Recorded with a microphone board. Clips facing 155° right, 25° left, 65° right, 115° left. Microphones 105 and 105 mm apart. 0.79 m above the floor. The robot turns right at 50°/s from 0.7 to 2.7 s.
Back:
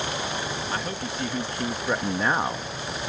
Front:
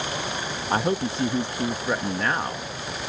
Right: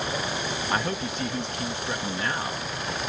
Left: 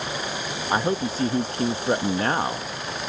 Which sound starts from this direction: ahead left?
A man speaking, at 0.7 s.